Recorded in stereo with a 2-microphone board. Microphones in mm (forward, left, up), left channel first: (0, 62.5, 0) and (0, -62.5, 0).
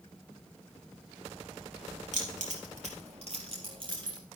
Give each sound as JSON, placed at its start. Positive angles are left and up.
{"t": 2.1, "sound": "keys jangling", "side_deg": -75, "distance_m": 3.5}